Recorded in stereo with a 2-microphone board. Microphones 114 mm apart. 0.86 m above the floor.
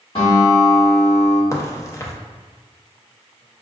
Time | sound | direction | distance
0.1 | a guitar | 60° left (ahead or behind) | 1.7 m
1.5 | a crack | 25° left (ahead or behind) | 0.5 m